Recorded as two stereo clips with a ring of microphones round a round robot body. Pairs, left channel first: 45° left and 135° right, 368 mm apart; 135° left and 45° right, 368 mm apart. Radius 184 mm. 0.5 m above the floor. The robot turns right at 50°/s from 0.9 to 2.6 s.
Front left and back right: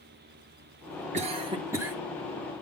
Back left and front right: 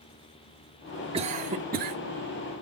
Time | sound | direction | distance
1.1 | a cough | 95° right | 1.0 m